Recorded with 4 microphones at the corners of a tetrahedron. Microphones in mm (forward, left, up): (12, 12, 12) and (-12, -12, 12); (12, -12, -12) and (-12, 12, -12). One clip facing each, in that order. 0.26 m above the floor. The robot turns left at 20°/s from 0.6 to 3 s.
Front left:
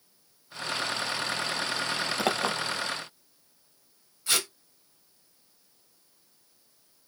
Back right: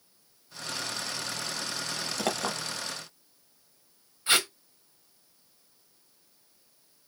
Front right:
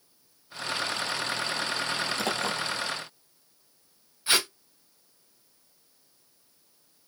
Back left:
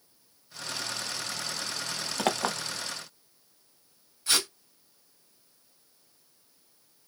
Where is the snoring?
No snoring in this recording.